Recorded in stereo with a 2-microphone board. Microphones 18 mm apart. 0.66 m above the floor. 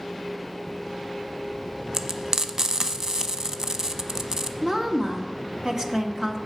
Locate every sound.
1.9 s frying: 30° right (ahead or behind), 0.6 m
4.6 s a woman speaking: 40° right (ahead or behind), 1.1 m